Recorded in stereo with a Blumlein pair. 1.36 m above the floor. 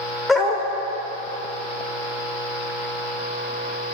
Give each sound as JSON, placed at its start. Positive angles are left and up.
{"t": 0.3, "sound": "a dog barking", "azimuth_deg": 10, "distance_m": 2.5}